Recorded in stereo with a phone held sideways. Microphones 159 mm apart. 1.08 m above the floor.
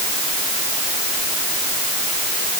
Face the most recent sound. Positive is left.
No sound to turn to.